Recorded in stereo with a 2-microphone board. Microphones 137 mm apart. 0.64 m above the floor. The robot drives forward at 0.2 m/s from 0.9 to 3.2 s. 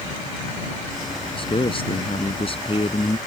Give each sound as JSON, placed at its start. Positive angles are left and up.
{"t": 1.4, "sound": "a man speaking", "side_deg": 40}